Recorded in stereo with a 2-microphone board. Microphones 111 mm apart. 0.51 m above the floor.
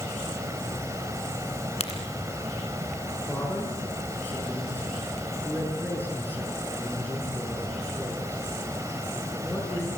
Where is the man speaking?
15° left (ahead or behind), 6.5 m.